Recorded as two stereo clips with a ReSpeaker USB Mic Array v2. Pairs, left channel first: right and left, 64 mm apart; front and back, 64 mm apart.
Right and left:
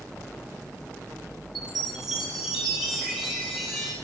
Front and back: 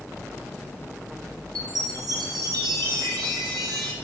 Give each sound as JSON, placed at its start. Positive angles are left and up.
{"t": 1.6, "sound": "a chime", "azimuth_deg": 175, "distance_m": 2.5}